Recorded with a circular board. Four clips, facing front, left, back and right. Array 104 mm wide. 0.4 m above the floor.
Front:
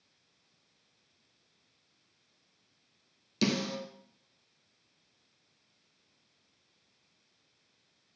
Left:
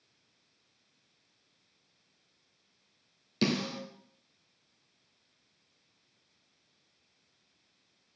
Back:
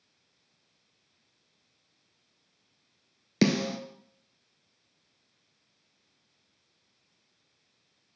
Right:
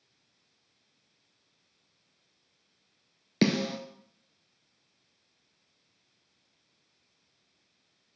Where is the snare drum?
135° right, 1.0 m.